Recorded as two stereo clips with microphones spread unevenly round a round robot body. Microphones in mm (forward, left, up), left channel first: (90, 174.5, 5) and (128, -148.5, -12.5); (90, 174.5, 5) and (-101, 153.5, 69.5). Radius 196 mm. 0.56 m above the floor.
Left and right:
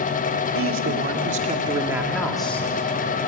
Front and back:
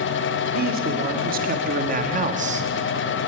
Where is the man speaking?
120° right, 1.9 m; by 2.7 s 140° left, 1.3 m.